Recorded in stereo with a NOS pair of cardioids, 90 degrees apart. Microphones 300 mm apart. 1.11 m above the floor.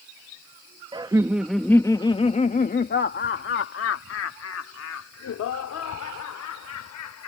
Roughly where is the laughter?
Ahead.